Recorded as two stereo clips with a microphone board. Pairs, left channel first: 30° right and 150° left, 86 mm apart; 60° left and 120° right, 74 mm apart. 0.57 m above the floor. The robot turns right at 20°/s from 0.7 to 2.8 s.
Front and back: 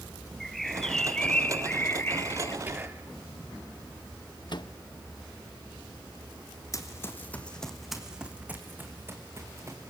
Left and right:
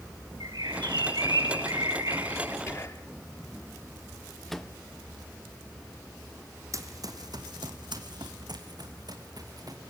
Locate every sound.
0.4 s a bird: 115° right, 1.2 m; by 2.6 s 80° right, 1.2 m
2.7 s whispering: 90° left, 0.8 m
4.5 s a microwave: 25° right, 0.7 m
6.7 s running footsteps: 80° right, 2 m; by 9.9 s 155° right, 4.5 m